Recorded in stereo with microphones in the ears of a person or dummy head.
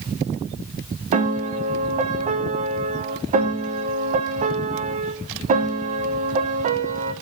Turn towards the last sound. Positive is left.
turn(degrees=-30)  # may be behind; listen again after turning